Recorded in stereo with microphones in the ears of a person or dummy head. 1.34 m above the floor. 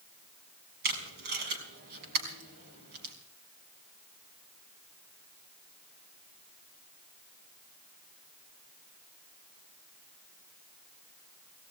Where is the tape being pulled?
60° right (ahead or behind), 5 m.